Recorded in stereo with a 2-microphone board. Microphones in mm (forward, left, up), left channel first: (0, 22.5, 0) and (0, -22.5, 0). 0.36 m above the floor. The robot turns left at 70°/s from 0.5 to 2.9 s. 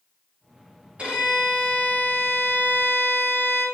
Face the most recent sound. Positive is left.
turn(degrees=75)